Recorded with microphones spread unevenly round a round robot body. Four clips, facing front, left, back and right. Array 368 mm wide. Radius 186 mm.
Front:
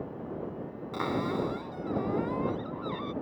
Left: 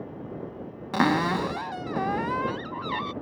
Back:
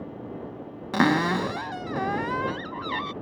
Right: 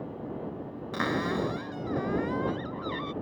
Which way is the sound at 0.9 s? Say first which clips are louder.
Left 6 dB, back 8 dB; 150° left.